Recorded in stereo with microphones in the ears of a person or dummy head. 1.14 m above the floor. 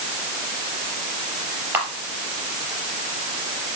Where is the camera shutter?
10° right (ahead or behind), 4 m.